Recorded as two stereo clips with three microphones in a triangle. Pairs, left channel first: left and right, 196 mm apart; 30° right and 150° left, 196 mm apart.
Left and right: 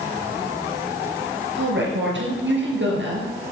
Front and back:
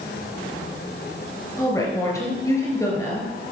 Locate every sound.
1.6 s a woman speaking: 105° right, 3.5 m